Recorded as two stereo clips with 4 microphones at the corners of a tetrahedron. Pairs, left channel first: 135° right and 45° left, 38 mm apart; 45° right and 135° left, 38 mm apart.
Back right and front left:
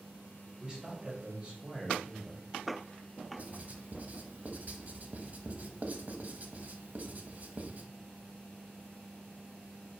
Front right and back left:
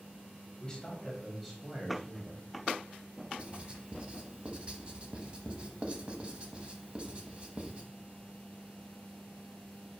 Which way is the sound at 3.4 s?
80° left.